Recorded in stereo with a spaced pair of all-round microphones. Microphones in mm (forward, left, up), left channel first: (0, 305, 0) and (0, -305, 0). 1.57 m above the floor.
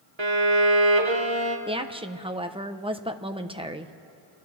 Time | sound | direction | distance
0.2 | a violin | 45° right (ahead or behind) | 1.7 m
1.7 | a woman speaking | 10° right (ahead or behind) | 1.0 m